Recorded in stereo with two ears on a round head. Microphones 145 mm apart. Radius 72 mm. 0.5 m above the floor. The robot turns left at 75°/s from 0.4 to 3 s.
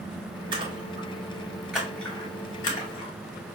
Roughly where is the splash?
Right.